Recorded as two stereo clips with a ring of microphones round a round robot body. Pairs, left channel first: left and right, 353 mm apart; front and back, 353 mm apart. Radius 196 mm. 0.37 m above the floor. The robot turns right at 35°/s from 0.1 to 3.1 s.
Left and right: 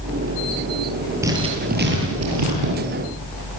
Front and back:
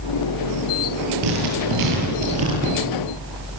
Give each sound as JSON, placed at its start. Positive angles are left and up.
{"t": 1.2, "sound": "writing", "azimuth_deg": -175, "distance_m": 9.0}